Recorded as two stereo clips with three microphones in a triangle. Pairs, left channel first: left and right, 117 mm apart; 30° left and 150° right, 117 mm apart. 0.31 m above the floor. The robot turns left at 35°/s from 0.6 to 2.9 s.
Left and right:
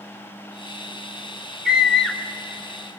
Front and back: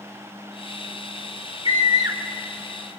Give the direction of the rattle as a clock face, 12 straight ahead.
I don't hear a rattle.